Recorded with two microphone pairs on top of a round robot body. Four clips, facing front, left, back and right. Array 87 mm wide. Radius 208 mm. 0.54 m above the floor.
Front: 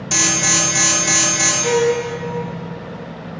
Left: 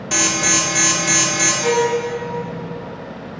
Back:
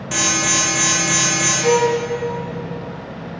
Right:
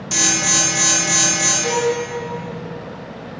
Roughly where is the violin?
Left.